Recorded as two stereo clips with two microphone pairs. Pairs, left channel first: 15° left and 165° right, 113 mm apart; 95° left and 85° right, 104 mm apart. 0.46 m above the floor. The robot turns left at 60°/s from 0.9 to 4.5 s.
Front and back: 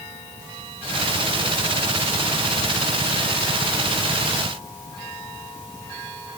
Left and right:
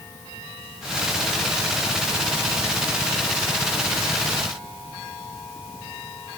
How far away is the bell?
I don't hear a bell.